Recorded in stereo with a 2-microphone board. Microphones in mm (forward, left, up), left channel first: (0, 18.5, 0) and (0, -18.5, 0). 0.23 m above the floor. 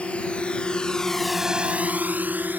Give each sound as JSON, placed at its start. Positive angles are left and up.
{"t": 0.0, "sound": "a drone", "side_deg": 35}